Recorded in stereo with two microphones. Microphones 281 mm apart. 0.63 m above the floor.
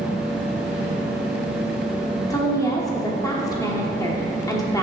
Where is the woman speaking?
15° left (ahead or behind), 1.0 m.